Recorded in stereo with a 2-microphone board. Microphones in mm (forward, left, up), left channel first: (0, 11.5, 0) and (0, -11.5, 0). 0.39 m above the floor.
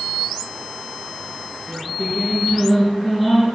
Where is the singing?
10° left (ahead or behind), 6.5 m.